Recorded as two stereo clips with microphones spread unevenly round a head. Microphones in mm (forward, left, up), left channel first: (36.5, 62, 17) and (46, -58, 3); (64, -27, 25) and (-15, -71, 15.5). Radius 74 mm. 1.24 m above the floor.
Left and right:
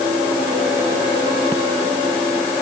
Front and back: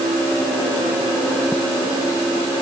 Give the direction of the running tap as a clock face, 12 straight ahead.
No running tap in this recording.